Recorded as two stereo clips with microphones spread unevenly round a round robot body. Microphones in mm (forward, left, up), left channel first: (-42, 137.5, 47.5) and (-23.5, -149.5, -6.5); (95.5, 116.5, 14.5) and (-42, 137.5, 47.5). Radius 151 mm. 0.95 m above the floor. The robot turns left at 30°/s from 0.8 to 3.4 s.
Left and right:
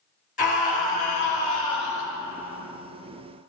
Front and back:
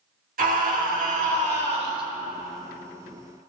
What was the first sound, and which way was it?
A scream, 160° left.